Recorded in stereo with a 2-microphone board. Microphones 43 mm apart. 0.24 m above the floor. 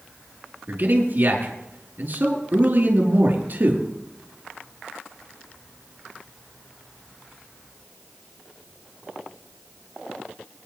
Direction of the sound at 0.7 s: 45° right (ahead or behind).